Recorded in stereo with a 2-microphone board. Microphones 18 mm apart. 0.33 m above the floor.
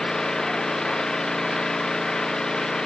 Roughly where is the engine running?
Left.